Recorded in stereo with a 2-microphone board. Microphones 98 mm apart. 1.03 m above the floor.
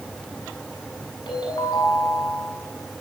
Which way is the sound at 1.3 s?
60° left (ahead or behind).